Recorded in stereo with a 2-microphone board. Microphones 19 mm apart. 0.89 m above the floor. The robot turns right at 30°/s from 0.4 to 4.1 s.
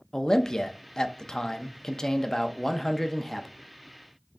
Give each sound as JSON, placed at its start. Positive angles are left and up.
{"t": 0.1, "sound": "a man speaking", "azimuth_deg": 75, "distance_m": 0.6}